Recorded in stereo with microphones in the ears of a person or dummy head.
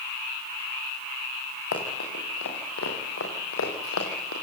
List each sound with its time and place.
1.7 s running footsteps: 75° left (ahead or behind), 9 m; by 4.3 s 80° left, 9 m